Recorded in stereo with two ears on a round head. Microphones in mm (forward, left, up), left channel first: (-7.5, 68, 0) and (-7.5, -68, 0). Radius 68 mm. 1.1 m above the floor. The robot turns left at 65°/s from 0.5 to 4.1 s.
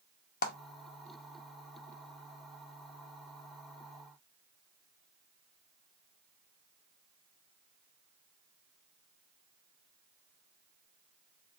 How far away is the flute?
I don't hear a flute.